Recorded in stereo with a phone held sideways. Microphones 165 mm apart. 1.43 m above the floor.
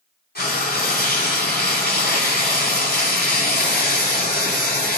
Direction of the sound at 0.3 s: 75° left (ahead or behind).